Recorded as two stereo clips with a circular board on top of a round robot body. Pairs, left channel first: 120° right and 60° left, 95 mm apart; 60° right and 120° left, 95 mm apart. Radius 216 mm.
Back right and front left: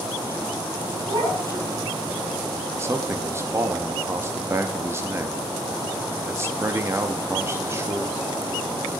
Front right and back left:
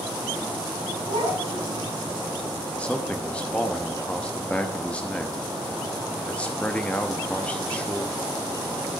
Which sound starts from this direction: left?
A child speaking, at 1.1 s.